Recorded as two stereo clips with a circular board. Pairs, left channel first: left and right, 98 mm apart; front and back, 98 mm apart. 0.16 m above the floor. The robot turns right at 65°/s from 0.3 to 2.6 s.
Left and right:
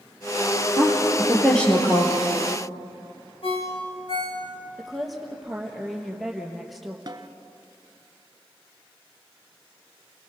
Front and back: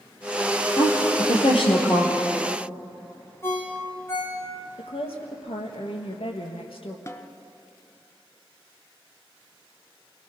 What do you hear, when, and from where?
0.8 s a woman speaking: 45° right, 4.5 m; by 2.1 s 45° left, 4.5 m
3.4 s a ringtone: 65° left, 5 m
4.8 s a woman speaking: straight ahead, 3.5 m
7.1 s a snare drum: 50° right, 1.2 m